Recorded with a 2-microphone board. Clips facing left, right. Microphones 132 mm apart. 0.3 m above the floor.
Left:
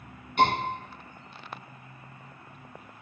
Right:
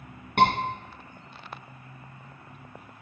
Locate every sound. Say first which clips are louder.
0.4 s a scream: right 2 dB; 60° right (ahead or behind), 2.5 m